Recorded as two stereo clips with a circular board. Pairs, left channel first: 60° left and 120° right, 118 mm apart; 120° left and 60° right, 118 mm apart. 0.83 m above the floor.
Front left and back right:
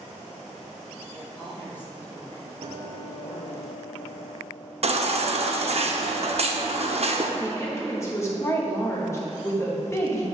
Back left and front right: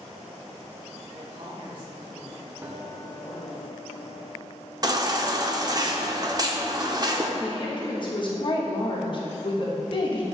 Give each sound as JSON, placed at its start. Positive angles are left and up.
{"t": 1.1, "sound": "a woman speaking", "azimuth_deg": -30, "distance_m": 1.4}
{"t": 2.6, "sound": "a guitar", "azimuth_deg": -125, "distance_m": 0.6}
{"t": 4.8, "sound": "a baby crying", "azimuth_deg": -110, "distance_m": 0.5}
{"t": 7.4, "sound": "a woman speaking", "azimuth_deg": 115, "distance_m": 1.1}